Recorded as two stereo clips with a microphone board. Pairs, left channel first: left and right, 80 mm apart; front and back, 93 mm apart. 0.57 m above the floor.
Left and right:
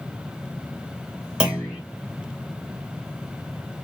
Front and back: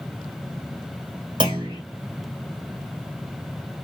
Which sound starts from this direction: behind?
A clunk, at 1.4 s.